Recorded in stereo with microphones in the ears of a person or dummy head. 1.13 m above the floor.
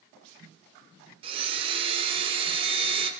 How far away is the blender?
About 0.8 m.